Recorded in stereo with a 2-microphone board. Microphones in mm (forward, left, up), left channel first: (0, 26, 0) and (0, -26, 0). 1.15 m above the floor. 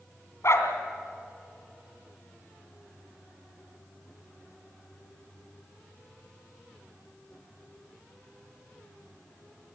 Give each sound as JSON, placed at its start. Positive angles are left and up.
{"t": 0.4, "sound": "a dog barking", "side_deg": 60, "distance_m": 2.5}